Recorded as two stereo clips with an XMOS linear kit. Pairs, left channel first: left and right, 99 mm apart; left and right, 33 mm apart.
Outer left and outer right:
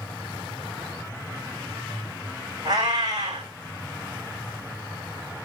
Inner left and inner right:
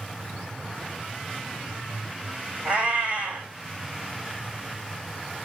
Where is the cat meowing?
45° right (ahead or behind), 3 m.